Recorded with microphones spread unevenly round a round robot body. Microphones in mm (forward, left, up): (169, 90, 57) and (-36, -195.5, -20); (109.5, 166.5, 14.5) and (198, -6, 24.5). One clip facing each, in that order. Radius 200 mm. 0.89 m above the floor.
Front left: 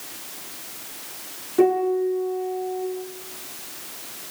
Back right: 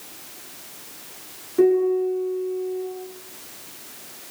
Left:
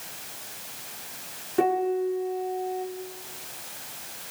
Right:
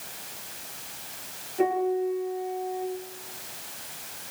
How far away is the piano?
About 7.5 m.